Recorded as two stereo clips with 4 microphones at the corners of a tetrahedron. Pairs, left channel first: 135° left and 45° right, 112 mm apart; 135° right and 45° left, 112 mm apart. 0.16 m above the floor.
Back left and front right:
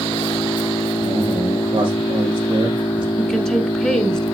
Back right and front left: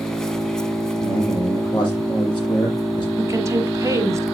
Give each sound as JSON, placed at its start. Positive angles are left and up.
{"t": 0.0, "sound": "an engine running", "azimuth_deg": 145, "distance_m": 1.1}
{"t": 1.0, "sound": "a man speaking", "azimuth_deg": -90, "distance_m": 7.0}
{"t": 3.2, "sound": "a woman speaking", "azimuth_deg": 60, "distance_m": 1.5}